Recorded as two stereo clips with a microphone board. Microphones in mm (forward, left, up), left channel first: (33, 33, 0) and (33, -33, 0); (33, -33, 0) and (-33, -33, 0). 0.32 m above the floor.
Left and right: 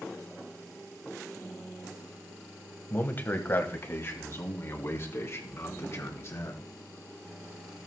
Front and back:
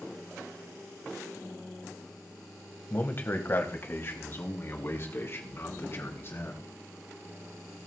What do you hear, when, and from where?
2.9 s a man speaking: 40° left, 1.5 m; by 6.7 s 45° left, 3.5 m